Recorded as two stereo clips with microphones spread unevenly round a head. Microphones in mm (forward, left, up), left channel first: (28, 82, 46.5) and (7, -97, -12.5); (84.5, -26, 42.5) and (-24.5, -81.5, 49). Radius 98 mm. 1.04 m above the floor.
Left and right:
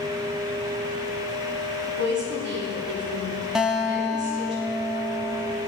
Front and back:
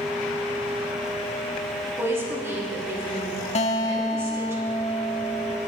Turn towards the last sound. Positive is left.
turn(degrees=-5)